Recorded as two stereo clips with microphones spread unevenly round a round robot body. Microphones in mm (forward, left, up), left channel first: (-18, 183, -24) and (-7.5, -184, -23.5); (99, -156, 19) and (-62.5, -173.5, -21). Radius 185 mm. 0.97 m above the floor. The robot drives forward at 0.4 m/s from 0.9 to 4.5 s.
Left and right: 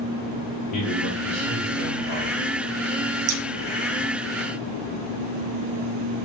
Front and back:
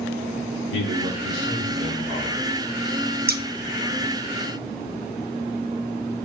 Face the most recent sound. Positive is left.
turn(degrees=-150)